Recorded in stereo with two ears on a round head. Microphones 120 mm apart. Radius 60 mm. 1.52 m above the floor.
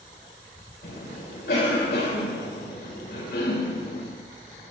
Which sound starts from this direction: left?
A cough, at 0.8 s.